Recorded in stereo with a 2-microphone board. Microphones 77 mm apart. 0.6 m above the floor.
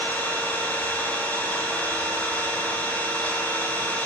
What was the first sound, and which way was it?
An engine running, 25° left (ahead or behind).